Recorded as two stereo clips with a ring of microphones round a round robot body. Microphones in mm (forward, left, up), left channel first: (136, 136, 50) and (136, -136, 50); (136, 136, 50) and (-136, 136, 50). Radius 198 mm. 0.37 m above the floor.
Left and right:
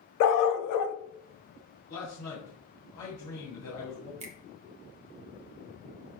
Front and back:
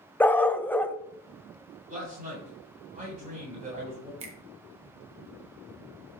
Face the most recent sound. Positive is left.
turn(degrees=-135)